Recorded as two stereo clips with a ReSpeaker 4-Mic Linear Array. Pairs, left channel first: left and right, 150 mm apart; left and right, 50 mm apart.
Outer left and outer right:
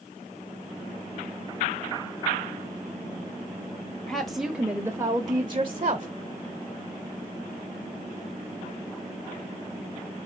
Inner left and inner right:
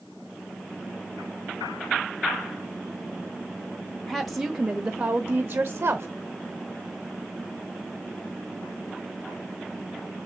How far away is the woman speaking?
About 1.3 m.